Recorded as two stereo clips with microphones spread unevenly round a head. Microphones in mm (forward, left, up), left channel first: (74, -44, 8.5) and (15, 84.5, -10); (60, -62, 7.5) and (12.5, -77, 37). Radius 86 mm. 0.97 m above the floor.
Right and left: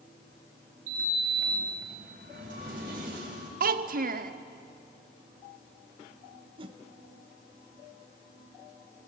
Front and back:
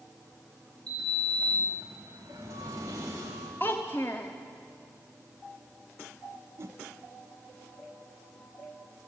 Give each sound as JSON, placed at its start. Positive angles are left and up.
{"t": 0.9, "sound": "a sliding door", "azimuth_deg": 160, "distance_m": 3.5}
{"t": 3.6, "sound": "a child speaking", "azimuth_deg": 90, "distance_m": 0.9}
{"t": 6.6, "sound": "a whoosh", "azimuth_deg": 130, "distance_m": 0.9}